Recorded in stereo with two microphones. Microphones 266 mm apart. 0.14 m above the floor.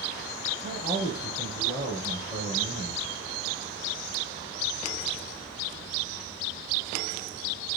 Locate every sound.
0.6 s a man speaking: 25° left (ahead or behind), 3.5 m